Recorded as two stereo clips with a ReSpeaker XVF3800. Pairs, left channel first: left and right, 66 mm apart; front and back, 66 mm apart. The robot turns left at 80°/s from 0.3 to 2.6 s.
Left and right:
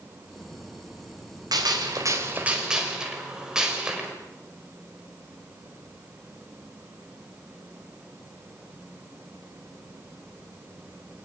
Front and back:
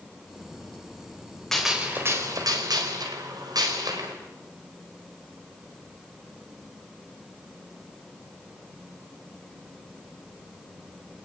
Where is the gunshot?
80° right, 5 m; by 4.2 s 170° right, 5 m.